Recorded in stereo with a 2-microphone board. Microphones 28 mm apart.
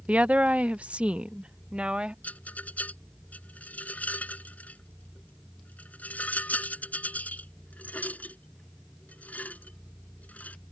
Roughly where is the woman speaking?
Right.